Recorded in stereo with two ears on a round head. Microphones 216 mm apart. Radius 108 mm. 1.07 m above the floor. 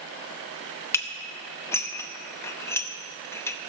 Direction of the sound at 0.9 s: 10° left (ahead or behind).